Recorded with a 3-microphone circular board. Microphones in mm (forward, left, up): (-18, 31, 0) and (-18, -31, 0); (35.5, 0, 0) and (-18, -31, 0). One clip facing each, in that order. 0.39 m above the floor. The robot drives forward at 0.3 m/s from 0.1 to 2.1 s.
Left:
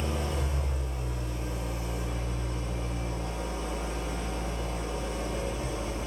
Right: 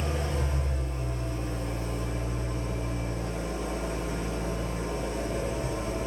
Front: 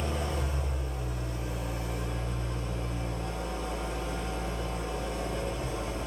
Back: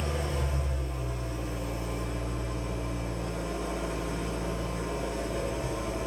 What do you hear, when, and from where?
0.0 s an engine running: 130° right, 1.8 m; by 6.1 s 140° right, 2 m